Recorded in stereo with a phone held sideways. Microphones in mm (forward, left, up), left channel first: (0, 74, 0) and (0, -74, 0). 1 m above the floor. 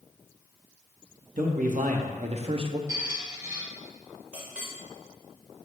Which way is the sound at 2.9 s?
20° right (ahead or behind).